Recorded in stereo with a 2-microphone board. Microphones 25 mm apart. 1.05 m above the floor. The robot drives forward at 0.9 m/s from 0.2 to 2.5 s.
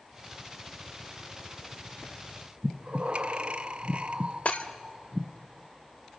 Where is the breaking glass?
60° left (ahead or behind), 1.2 m.